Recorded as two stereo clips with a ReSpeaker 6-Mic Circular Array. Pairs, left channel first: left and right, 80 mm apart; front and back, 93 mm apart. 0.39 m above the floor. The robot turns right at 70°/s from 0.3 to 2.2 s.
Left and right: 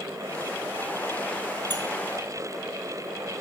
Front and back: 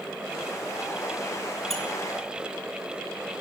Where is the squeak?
85° right, 1.6 m; by 1.8 s 75° right, 1.6 m.